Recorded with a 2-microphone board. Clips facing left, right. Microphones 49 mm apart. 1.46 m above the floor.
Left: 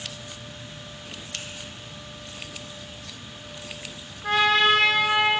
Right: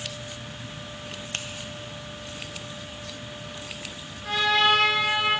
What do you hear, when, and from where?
1.3 s a finger snap: 40° right (ahead or behind), 0.7 m
4.2 s a trumpet: 40° left (ahead or behind), 1.4 m